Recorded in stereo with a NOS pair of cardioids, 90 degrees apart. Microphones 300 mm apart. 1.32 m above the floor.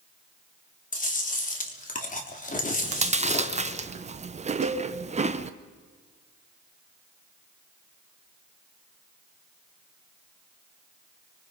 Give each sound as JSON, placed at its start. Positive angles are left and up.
{"t": 0.9, "sound": "chewing", "azimuth_deg": 25, "distance_m": 3.5}
{"t": 2.8, "sound": "chewing", "azimuth_deg": -25, "distance_m": 1.1}
{"t": 4.6, "sound": "a cowbell", "azimuth_deg": -60, "distance_m": 1.8}